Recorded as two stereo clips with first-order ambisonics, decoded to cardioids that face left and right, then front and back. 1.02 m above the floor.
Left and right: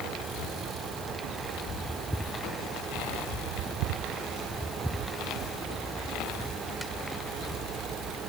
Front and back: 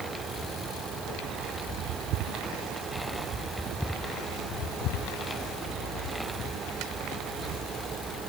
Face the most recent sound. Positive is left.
No sound to turn to.